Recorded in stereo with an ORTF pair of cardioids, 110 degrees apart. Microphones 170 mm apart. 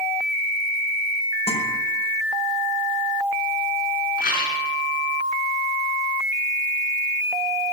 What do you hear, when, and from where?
1.5 s a guitar: 35° left, 5.5 m
4.2 s a rattle: 65° left, 4 m